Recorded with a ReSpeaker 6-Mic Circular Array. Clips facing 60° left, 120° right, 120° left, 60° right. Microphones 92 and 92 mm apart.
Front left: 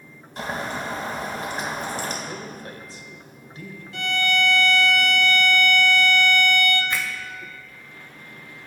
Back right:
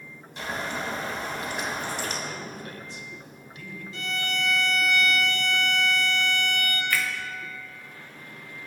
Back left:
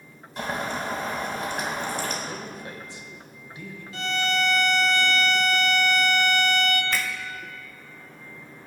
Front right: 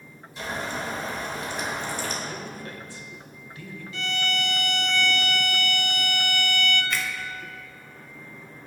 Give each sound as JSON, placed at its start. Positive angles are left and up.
{"t": 0.4, "sound": "boiling", "azimuth_deg": 100, "distance_m": 2.0}
{"t": 2.3, "sound": "a man speaking", "azimuth_deg": 65, "distance_m": 1.4}
{"t": 3.9, "sound": "a violin", "azimuth_deg": 75, "distance_m": 0.8}
{"t": 6.9, "sound": "a finger snap", "azimuth_deg": 115, "distance_m": 1.1}